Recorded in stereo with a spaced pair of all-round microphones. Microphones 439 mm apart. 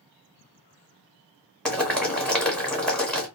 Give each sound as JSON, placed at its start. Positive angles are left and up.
{"t": 1.6, "sound": "boiling", "side_deg": 0, "distance_m": 1.0}